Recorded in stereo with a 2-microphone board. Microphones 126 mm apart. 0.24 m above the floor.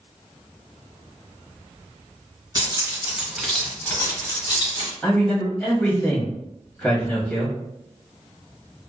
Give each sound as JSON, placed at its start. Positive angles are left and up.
{"t": 2.5, "sound": "keys jangling", "side_deg": -35, "distance_m": 1.0}
{"t": 5.0, "sound": "a man speaking", "side_deg": 10, "distance_m": 1.0}